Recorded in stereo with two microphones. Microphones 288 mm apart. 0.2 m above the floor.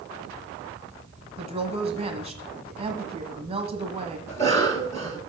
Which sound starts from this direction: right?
A woman speaking, at 1.4 s.